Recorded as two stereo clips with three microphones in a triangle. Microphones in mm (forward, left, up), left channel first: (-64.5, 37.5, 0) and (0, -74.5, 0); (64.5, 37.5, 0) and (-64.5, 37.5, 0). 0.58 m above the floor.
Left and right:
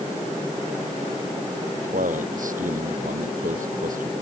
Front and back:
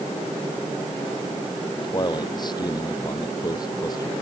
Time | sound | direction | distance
1.8 | a man speaking | 55° right | ?